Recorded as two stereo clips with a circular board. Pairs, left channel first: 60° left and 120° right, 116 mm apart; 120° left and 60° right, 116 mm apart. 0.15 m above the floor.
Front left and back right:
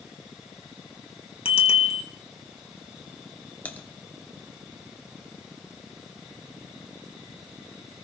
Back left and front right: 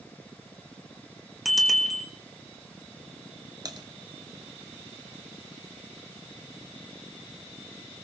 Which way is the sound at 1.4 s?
30° left.